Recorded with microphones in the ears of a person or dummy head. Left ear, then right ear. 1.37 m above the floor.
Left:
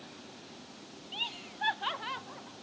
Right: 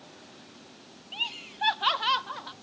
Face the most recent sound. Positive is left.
turn(degrees=-75)  # may be behind; listen again after turning